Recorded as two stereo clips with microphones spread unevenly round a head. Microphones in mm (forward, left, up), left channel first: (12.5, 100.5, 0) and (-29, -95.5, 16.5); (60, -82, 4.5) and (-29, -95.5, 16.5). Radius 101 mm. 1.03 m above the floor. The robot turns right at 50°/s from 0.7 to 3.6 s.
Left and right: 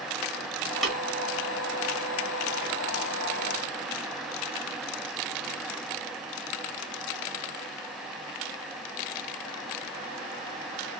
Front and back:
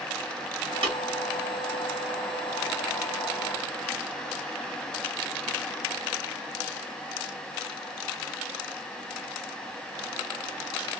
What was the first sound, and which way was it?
Tapping, 170° left.